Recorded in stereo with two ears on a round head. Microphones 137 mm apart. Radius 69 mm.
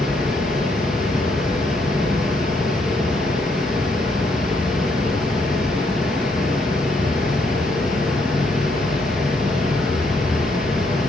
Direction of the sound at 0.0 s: 5° right (ahead or behind).